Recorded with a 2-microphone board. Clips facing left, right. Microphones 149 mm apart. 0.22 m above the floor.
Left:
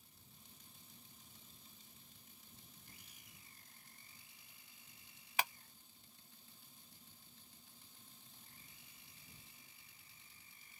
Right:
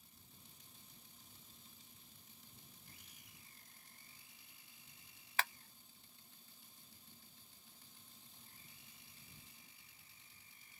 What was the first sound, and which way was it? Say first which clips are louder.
A clap: left 1 dB; 15° left (ahead or behind).